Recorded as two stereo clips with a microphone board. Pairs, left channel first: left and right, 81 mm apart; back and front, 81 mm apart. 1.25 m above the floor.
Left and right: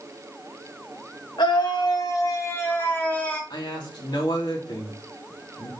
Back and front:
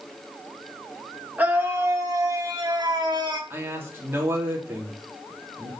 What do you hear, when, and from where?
1.4 s a scream: 70° left, 2 m; by 3.4 s 15° left, 3 m
3.5 s a man speaking: 60° left, 3 m